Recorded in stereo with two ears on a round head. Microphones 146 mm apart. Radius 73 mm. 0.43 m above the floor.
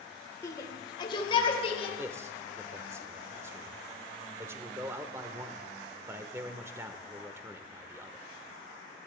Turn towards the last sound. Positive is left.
turn(degrees=-15)  # may be behind; listen again after turning